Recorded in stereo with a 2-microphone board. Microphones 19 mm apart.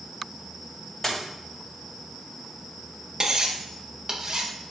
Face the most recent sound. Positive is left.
turn(degrees=-35)  # may be behind; listen again after turning